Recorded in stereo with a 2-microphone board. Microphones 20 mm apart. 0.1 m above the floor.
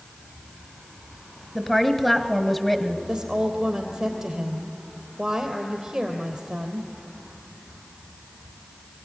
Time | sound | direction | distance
1.6 | a woman speaking | 5° right (ahead or behind) | 1.6 m
3.1 | a woman speaking | 45° right (ahead or behind) | 3.5 m